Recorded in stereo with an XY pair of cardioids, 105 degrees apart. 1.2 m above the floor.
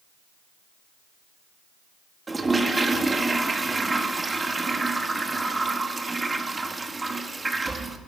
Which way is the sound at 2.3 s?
20° right.